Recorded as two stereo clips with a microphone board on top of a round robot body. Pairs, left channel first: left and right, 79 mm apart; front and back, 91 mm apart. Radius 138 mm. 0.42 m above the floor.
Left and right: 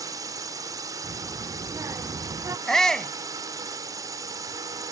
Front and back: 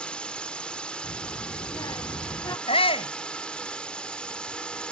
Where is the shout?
5° left.